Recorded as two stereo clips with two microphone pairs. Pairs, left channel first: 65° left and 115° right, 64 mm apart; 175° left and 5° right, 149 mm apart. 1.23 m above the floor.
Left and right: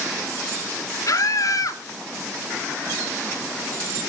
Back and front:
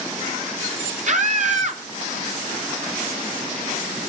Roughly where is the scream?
Ahead left.